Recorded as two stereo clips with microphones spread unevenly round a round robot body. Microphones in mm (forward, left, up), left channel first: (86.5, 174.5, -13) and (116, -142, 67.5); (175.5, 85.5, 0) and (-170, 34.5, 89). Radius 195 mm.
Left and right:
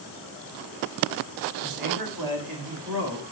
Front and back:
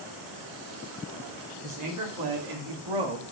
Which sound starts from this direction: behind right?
A man speaking, at 1.6 s.